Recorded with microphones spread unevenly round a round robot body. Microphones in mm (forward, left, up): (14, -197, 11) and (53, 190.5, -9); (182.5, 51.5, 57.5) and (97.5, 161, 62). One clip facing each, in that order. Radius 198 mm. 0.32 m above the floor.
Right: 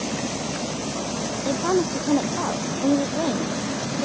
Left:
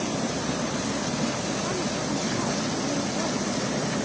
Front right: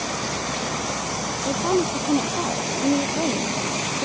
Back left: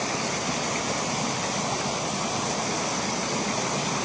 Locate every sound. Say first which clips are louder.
1.4 s a woman speaking: right 7 dB, front right 7 dB; 85° right; by 4.1 s 70° right